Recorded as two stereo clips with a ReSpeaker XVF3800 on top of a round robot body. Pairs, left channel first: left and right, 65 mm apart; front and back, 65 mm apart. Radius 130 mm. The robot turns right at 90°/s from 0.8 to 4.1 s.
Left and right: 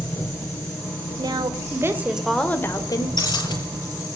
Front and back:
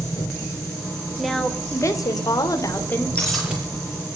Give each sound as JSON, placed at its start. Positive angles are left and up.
{"t": 0.0, "sound": "an engine running", "azimuth_deg": 25, "distance_m": 5.5}
{"t": 1.2, "sound": "a woman speaking", "azimuth_deg": -100, "distance_m": 3.0}
{"t": 3.2, "sound": "breaking glass", "azimuth_deg": 70, "distance_m": 6.5}